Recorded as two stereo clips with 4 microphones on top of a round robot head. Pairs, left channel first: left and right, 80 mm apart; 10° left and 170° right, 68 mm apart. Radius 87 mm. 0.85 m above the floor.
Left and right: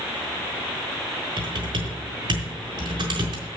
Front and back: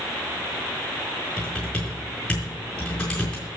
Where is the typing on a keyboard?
70° right, 4.5 m.